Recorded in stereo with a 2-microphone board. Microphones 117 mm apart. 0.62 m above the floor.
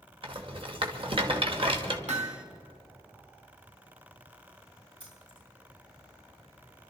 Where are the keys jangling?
45° right (ahead or behind), 6.5 m.